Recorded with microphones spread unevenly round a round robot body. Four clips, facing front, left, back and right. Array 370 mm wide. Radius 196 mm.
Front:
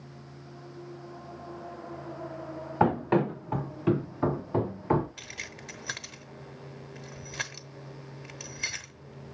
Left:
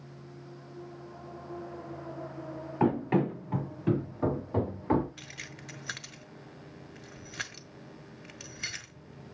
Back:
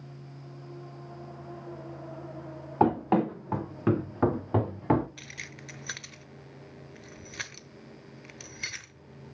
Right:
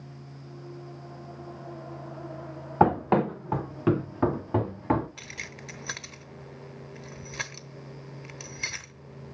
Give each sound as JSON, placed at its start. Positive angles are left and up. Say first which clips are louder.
{"t": 2.8, "sound": "running footsteps", "louder": "right 5 dB, back 1 dB", "azimuth_deg": -90, "distance_m": 3.5}
{"t": 5.2, "sound": "keys jangling", "louder": "right 4 dB, front 2 dB", "azimuth_deg": -80, "distance_m": 1.1}